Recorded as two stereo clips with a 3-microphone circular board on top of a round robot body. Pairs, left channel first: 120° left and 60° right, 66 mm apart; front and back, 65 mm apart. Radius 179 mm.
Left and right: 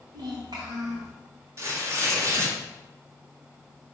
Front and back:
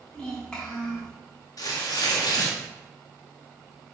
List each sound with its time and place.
0.1 s a child speaking: 75° right, 3.5 m
1.6 s tearing paper: 15° right, 1.9 m